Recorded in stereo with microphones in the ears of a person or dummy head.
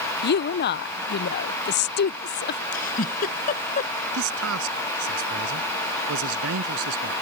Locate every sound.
0.2 s a woman speaking: 55° left (ahead or behind)
2.7 s a giggle: 50° left (ahead or behind)
4.1 s a man speaking: 85° right